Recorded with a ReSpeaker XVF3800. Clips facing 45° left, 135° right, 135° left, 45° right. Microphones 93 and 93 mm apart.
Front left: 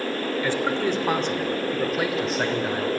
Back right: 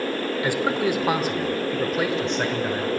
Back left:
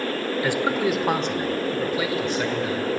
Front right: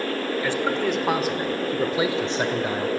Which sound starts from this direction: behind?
A man speaking, at 0.4 s.